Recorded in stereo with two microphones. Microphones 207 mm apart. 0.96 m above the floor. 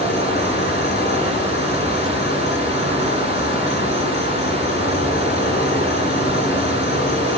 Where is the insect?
55° left (ahead or behind), 4 m.